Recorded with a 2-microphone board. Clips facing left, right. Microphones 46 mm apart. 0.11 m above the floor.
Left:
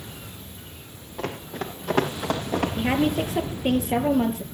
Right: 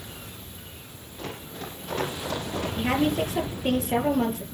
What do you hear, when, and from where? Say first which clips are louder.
1.2 s running footsteps: left 6 dB; 85° left, 5 m; by 2.7 s 80° left, 5.5 m
2.8 s a woman speaking: right 1 dB; 15° left (ahead or behind), 3 m